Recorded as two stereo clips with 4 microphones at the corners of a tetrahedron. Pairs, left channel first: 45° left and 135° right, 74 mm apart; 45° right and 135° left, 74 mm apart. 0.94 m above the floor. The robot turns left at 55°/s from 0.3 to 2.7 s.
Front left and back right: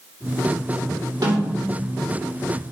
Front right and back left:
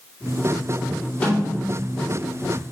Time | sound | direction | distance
1.2 | a snare drum | 115° right | 3 m